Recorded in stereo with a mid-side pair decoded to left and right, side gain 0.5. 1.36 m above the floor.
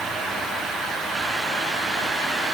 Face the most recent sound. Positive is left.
No sound to turn to.